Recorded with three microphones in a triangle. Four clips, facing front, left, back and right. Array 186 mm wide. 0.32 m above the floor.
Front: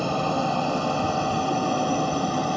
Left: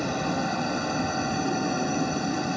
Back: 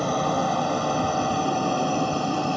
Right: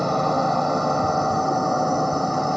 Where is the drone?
100° right; by 2.6 s 85° right.